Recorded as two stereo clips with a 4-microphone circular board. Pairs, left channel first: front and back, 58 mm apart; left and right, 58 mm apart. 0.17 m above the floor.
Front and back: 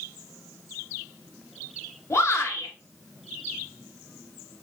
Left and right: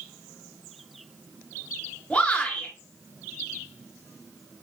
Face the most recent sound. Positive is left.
turn(degrees=25)